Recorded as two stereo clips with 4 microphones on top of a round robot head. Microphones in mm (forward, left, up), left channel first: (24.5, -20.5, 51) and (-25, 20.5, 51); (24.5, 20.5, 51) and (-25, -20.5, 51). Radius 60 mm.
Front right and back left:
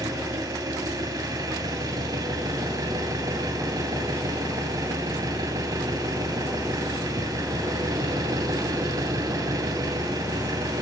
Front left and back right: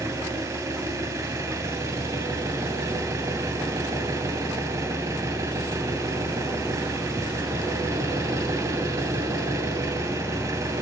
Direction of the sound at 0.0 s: Straight behind.